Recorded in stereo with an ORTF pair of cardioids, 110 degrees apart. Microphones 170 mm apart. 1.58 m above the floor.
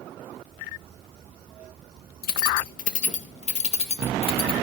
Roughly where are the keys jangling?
Ahead left.